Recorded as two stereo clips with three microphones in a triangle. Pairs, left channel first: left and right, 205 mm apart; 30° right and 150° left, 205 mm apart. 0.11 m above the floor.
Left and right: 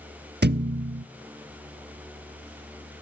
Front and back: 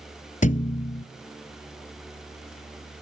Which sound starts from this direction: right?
A thud, at 0.4 s.